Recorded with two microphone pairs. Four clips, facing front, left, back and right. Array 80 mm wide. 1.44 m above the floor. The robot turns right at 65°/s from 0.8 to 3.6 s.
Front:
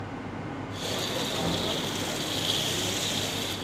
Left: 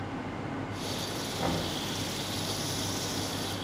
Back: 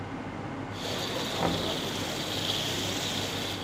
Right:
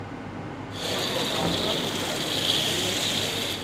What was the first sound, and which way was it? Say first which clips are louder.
Knocking: right 1 dB, back 3 dB; 160° right.